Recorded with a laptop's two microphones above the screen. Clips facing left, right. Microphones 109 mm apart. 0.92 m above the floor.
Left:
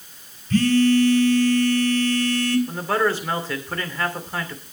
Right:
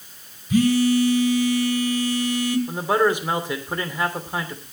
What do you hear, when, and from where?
0.5 s a phone buzzing: 10° right (ahead or behind), 1.9 m
2.7 s a man speaking: 15° right (ahead or behind), 3 m